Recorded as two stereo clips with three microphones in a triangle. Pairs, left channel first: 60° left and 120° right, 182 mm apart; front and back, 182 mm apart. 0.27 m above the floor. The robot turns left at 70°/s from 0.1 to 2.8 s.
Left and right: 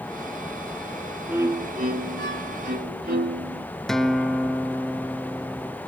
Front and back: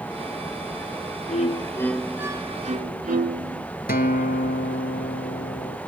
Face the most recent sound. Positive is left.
turn(degrees=-30)